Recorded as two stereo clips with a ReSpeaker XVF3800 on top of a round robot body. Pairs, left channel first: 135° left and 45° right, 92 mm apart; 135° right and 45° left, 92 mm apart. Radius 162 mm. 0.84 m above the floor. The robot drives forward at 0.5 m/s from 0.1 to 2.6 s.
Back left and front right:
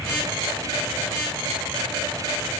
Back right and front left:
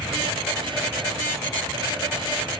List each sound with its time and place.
Only background noise.